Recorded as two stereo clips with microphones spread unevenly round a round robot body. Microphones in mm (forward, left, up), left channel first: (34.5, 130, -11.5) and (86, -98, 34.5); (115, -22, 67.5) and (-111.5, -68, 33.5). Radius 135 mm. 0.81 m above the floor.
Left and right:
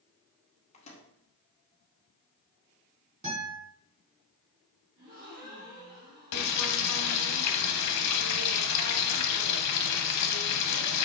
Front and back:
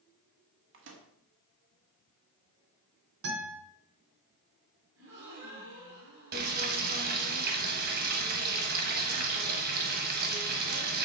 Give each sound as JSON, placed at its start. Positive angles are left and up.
{"t": 0.7, "sound": "a microwave", "azimuth_deg": 165, "distance_m": 1.5}
{"t": 3.2, "sound": "a guitar", "azimuth_deg": -145, "distance_m": 4.5}
{"t": 5.0, "sound": "a gasp", "azimuth_deg": -135, "distance_m": 4.5}
{"t": 6.3, "sound": "frying", "azimuth_deg": 135, "distance_m": 1.0}